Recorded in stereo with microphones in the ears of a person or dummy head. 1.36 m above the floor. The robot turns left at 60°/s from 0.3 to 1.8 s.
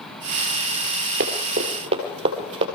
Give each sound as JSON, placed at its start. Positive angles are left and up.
{"t": 1.2, "sound": "running footsteps", "side_deg": -45, "distance_m": 1.8}